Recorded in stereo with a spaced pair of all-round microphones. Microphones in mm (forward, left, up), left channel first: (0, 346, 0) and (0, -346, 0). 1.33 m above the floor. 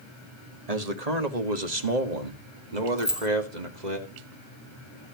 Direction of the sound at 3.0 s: Centre (ahead or behind).